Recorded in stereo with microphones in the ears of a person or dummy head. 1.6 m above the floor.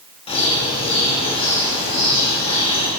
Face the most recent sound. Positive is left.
turn(degrees=25)  # may be behind; listen again after turning